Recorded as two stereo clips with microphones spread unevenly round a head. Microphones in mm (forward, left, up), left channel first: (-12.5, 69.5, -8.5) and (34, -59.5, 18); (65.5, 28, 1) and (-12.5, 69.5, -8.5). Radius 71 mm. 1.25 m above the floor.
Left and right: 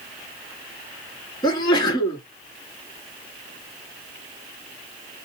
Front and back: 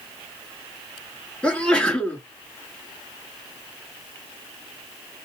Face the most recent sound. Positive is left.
turn(degrees=50)